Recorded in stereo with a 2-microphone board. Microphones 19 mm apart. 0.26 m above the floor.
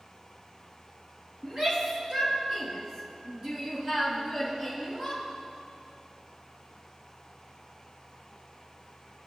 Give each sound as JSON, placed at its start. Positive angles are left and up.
{"t": 1.4, "sound": "a shout", "side_deg": -45, "distance_m": 4.0}